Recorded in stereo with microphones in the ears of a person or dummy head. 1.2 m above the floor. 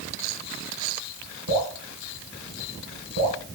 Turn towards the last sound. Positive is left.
turn(degrees=-70)  # may be behind; listen again after turning